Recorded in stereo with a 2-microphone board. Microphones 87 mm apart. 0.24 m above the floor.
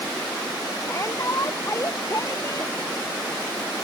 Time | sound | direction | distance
0.8 | a shout | 35° left (ahead or behind) | ?